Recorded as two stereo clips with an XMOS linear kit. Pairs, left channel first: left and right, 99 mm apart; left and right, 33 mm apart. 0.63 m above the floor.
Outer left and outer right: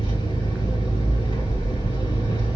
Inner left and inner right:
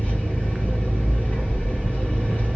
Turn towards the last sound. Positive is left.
turn(degrees=65)  # may be behind; listen again after turning